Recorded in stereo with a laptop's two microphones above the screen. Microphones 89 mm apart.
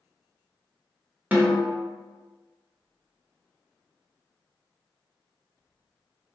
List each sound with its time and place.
1.3 s a snare drum: 20° right (ahead or behind), 0.7 m